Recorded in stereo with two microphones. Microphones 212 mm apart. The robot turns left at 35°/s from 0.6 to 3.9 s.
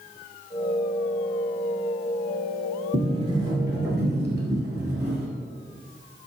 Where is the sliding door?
130° right, 1.1 m; by 5.3 s 165° right, 1.1 m.